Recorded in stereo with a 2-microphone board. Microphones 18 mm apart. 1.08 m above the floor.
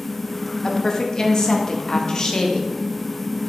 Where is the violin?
I don't hear a violin.